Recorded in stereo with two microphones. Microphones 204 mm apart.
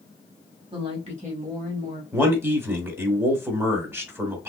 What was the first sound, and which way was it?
A woman speaking, 25° right (ahead or behind).